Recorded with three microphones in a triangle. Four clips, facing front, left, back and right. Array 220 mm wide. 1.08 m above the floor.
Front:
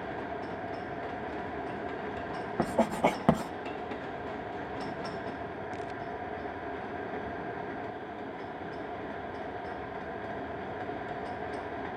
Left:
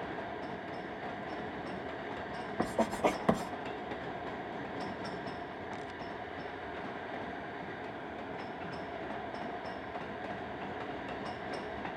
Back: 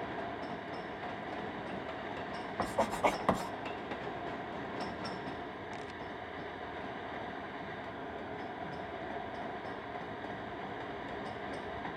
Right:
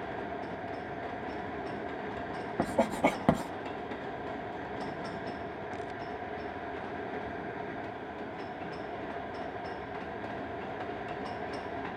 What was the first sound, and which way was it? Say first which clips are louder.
Writing: right 3 dB, front 4 dB; 40° right.